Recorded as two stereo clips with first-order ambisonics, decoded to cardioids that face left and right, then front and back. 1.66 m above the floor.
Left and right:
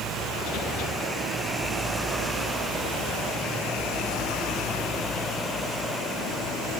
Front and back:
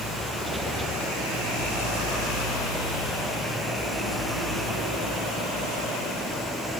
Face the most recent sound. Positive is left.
No sound to turn to.